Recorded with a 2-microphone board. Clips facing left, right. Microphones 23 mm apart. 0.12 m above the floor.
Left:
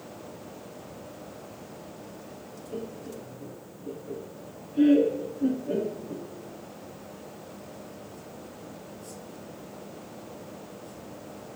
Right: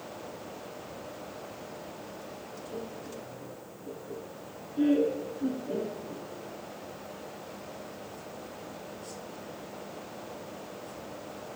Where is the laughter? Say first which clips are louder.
Left 4 dB; 20° left (ahead or behind), 1.1 m.